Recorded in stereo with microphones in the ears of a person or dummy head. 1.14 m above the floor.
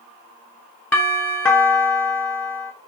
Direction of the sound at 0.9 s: 5° left (ahead or behind).